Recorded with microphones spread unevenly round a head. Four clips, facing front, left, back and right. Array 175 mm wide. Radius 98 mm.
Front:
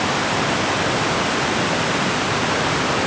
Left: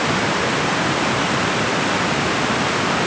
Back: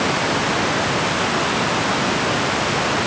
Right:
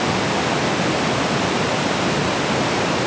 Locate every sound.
Only background noise.